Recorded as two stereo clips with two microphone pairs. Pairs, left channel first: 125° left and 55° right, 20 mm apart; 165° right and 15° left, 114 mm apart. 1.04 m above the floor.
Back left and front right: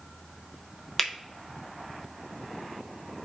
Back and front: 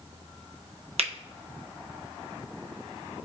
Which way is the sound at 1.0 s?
40° left.